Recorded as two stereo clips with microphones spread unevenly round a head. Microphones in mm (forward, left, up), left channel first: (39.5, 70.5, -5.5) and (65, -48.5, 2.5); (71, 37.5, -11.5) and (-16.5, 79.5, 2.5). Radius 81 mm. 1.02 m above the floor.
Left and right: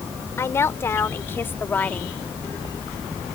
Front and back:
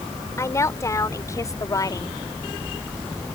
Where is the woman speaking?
35° left; by 2.2 s 20° left.